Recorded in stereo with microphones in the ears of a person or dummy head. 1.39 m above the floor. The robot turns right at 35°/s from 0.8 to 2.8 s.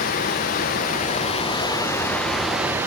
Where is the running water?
125° left, 0.7 m; by 2.9 s 165° right, 0.7 m.